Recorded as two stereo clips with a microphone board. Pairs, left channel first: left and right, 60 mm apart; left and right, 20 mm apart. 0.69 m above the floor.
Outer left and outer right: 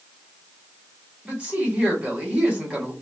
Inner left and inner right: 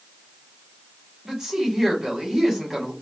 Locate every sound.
1.2 s a woman speaking: 20° right (ahead or behind), 1.3 m